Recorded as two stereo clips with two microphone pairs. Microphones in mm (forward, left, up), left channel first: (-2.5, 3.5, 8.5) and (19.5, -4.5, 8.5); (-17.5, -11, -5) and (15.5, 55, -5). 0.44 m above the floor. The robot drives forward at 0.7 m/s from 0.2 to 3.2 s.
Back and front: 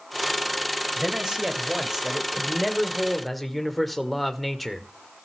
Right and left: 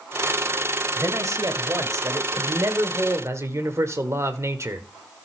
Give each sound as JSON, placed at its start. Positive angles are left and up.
{"t": 1.0, "sound": "a man speaking", "azimuth_deg": 30, "distance_m": 2.5}